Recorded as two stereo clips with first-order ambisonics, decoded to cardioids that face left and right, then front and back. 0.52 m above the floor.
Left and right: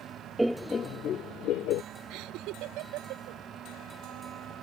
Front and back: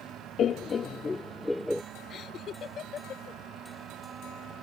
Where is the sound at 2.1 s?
60° right.